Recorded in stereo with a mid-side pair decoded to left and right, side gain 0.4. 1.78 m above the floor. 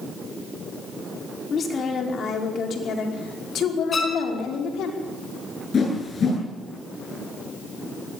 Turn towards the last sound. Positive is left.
turn(degrees=50)